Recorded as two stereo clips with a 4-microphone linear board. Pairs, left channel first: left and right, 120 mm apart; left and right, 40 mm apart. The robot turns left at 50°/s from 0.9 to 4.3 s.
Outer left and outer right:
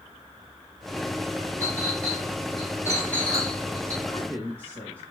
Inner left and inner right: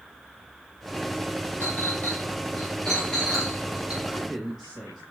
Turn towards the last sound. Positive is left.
turn(degrees=-20)  # may be behind; listen again after turning